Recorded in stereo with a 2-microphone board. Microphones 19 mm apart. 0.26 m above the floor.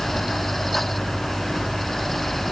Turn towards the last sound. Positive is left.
No sound to turn to.